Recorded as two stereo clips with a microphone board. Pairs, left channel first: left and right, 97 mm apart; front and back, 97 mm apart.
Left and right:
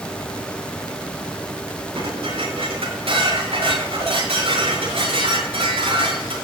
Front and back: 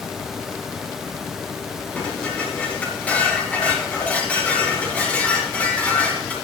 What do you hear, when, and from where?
1.9 s dishes clattering: 75° right, 7.5 m